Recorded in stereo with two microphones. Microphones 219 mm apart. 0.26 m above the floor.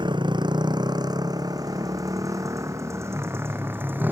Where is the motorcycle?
20° right (ahead or behind); by 4.1 s 10° right (ahead or behind).